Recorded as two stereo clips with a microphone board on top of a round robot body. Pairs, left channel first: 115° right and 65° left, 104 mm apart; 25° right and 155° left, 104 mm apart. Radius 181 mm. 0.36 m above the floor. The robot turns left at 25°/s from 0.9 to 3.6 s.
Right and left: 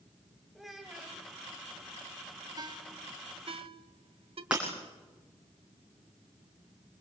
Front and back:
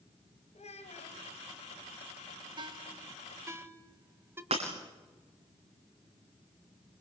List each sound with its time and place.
0.6 s a child speaking: 20° right, 1.7 m; by 1.2 s 30° right, 1.7 m
2.6 s a ringtone: 115° left, 1.9 m; by 4.4 s 90° left, 1.9 m
4.5 s breaking glass: 145° left, 6.5 m